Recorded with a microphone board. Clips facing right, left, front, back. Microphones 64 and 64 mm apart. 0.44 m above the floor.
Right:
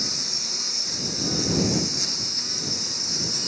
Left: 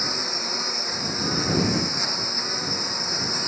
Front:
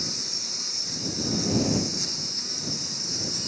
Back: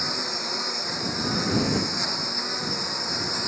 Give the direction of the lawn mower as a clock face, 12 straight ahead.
7 o'clock.